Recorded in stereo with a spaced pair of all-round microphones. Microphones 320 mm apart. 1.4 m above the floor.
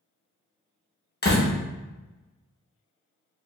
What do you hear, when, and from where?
1.2 s a door slam: 30° left (ahead or behind), 0.8 m